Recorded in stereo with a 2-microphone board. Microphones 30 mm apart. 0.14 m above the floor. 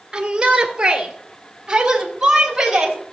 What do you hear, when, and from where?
0.1 s a shout: 25° right (ahead or behind), 2.5 m; by 3.0 s 10° right (ahead or behind), 4 m